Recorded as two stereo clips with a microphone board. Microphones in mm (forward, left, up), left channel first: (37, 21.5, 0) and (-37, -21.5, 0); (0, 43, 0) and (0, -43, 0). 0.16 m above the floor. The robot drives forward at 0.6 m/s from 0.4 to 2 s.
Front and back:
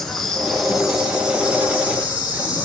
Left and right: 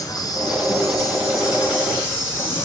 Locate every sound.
0.0 s an insect: 115° left, 1.6 m; by 2.7 s 145° left, 2 m